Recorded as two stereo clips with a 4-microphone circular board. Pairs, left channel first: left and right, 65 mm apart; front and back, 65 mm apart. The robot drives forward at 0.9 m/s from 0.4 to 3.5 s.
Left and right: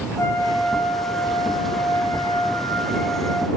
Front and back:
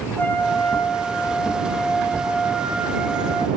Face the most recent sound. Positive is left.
turn(degrees=135)